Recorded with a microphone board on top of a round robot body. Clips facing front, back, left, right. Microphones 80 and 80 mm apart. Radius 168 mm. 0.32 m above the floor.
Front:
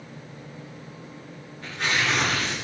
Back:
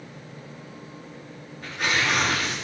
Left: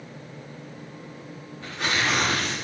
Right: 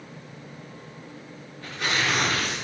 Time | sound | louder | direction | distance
1.6 | tearing paper | back 1 dB, left 1 dB | 100° left | 9 m